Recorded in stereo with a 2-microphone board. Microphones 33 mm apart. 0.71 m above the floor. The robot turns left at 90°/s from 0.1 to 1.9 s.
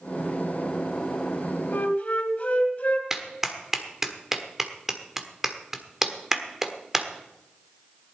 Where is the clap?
10° right (ahead or behind), 1.3 m.